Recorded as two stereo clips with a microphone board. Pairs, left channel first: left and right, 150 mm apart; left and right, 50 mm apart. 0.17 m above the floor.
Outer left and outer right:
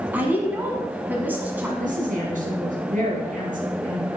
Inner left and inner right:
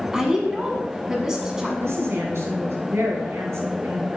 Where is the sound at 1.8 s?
65° right (ahead or behind), 3 m.